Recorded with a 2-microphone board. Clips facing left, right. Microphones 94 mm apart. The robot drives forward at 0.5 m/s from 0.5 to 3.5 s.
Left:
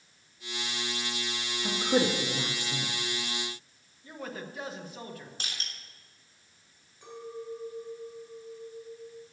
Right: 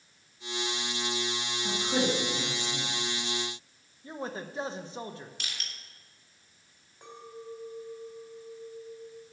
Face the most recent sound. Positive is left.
turn(degrees=-50)  # may be behind; listen again after turning